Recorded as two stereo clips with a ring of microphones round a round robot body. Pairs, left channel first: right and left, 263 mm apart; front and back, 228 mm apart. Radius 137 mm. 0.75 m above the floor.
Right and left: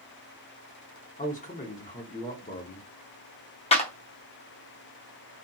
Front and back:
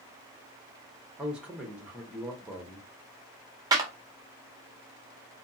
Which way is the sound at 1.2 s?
100° right.